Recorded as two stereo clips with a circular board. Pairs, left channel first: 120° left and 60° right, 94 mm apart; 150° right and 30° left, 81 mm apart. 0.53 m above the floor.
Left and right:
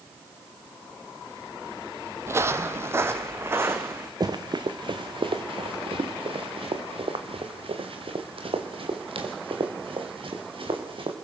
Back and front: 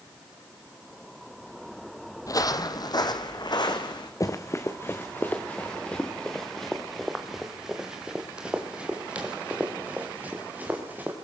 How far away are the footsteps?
About 0.9 m.